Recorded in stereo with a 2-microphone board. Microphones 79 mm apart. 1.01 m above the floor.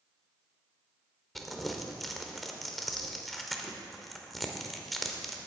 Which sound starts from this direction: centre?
Crumpling, at 1.4 s.